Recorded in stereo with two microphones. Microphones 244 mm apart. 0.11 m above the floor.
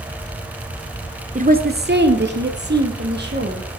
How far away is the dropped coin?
I don't hear a dropped coin.